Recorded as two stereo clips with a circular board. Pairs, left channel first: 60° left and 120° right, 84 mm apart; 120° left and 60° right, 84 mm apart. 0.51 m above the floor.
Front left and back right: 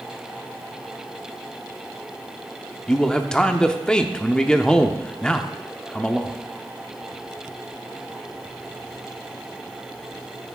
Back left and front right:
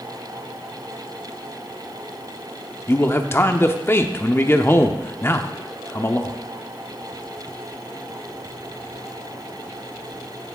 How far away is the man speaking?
About 0.7 m.